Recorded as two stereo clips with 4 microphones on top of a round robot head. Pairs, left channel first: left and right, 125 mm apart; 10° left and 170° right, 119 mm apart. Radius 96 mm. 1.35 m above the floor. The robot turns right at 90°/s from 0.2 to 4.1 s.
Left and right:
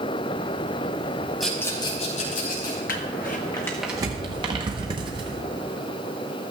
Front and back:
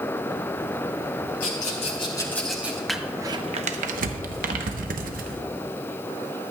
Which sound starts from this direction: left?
Crumpling, at 2.9 s.